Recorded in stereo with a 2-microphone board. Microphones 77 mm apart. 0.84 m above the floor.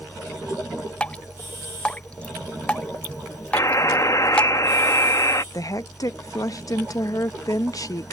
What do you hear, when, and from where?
1.0 s dripping: 15° left (ahead or behind)
3.5 s a buzzer: 45° left (ahead or behind)
5.5 s a woman speaking: 50° left (ahead or behind)